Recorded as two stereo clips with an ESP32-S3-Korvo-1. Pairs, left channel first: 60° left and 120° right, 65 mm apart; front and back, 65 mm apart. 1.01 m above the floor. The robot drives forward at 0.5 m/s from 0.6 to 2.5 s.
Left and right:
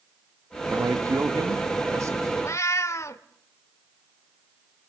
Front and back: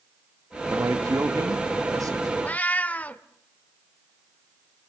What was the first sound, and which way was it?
A man speaking, 145° right.